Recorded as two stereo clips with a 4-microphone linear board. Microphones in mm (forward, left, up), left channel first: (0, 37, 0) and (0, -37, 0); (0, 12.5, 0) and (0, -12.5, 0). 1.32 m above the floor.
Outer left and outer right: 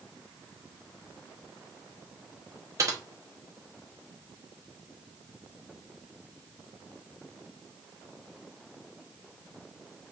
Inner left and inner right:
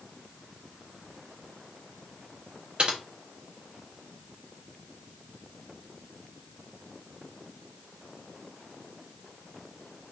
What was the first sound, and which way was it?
Typing on a keyboard, 45° right (ahead or behind).